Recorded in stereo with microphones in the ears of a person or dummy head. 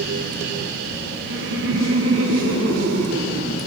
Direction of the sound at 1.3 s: 70° right (ahead or behind).